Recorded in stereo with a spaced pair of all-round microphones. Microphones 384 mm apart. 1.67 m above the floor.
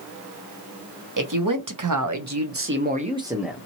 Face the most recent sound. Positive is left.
turn(degrees=5)  # may be behind; listen again after turning